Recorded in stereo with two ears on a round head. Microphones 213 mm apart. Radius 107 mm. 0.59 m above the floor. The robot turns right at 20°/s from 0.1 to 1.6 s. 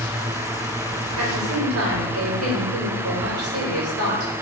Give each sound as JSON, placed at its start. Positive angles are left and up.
{"t": 1.2, "sound": "a woman speaking", "side_deg": -65, "distance_m": 2.5}